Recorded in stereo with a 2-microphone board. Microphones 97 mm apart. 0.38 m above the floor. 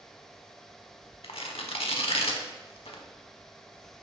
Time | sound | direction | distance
1.2 | tearing paper | 75° left (ahead or behind) | 0.6 m